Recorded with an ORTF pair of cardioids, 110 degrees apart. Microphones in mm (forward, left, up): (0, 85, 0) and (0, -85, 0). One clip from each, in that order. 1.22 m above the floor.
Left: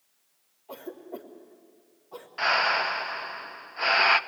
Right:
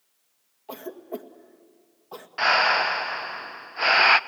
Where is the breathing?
20° right, 0.6 m.